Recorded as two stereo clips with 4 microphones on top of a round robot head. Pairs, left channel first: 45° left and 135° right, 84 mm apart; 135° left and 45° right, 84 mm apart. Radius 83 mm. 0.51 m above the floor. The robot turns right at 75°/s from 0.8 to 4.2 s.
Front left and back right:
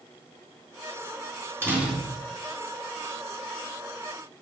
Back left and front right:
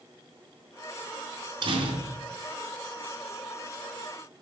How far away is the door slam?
About 3.5 m.